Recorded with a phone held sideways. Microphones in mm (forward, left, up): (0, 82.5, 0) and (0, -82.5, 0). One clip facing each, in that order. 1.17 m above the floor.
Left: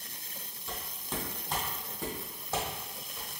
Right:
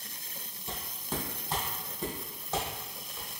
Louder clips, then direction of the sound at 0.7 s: Right 2 dB; 20° right (ahead or behind).